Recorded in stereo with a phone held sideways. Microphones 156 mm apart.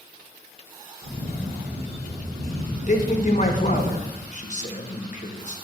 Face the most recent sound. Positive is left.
turn(degrees=50)  # may be behind; listen again after turning